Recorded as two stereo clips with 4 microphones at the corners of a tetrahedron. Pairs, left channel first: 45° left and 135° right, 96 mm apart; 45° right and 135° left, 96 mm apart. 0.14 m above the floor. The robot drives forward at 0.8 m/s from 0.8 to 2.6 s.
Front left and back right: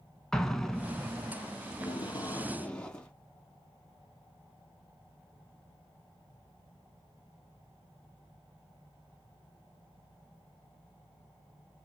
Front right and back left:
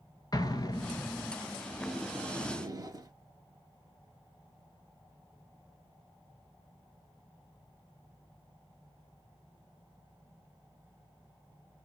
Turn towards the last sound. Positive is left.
turn(degrees=120)